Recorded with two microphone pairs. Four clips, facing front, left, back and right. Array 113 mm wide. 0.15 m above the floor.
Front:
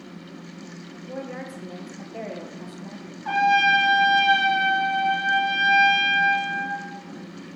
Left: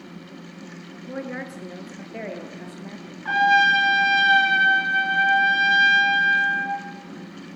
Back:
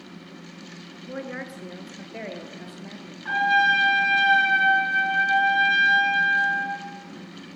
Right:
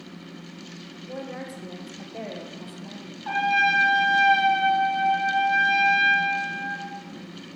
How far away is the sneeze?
I don't hear a sneeze.